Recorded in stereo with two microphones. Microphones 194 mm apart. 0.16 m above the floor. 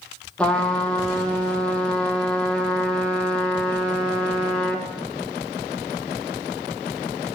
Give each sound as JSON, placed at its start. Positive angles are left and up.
{"t": 0.4, "sound": "a trumpet", "side_deg": 5, "distance_m": 1.1}